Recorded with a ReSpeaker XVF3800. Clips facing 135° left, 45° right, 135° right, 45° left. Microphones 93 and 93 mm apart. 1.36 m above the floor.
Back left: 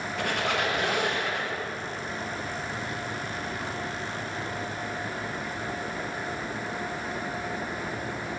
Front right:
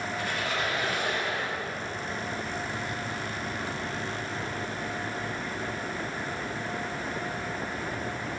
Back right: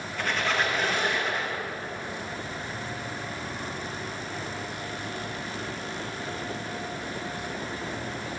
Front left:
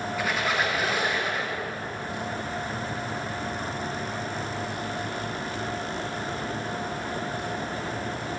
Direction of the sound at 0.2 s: 130° left.